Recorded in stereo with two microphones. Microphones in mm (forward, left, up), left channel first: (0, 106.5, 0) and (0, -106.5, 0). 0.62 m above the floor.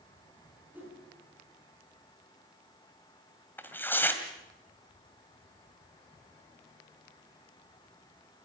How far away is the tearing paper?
About 2 m.